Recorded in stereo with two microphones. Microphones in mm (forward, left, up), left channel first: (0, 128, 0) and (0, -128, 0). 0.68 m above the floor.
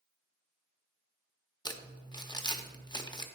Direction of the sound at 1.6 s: 15° left (ahead or behind).